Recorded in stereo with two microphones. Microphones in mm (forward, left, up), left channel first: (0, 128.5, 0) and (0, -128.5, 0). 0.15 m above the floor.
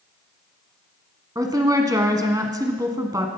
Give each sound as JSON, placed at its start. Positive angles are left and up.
{"t": 1.4, "sound": "a woman speaking", "side_deg": -15, "distance_m": 1.1}